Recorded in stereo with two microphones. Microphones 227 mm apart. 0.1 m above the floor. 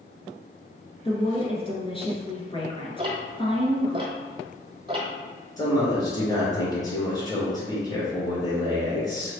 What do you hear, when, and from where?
1.1 s a woman speaking: 25° left (ahead or behind), 1.2 m
3.0 s ticking: 20° right (ahead or behind), 1.1 m
5.6 s a man speaking: 15° left (ahead or behind), 1.4 m